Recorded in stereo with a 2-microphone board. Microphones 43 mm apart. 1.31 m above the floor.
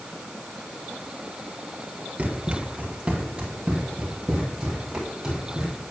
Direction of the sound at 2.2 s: 30° right (ahead or behind).